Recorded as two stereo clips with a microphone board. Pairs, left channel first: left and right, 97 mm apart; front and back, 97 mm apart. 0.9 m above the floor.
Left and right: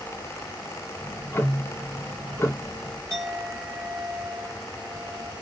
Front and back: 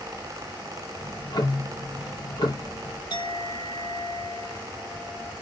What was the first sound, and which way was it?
Ticking, 30° left.